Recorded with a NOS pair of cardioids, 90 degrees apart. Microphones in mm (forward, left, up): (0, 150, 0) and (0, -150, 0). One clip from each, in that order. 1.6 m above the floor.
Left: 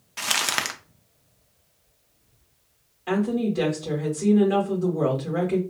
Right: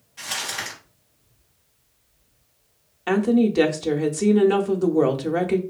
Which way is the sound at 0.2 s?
70° left.